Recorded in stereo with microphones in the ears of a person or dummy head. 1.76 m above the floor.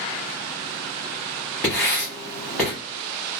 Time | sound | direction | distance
1.6 | writing | 5° right (ahead or behind) | 1.0 m